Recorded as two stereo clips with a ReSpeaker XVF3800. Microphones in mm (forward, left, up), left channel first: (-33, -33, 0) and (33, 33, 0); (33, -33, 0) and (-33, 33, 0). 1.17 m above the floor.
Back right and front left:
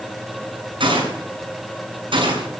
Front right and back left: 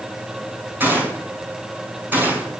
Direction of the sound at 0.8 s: 65° left.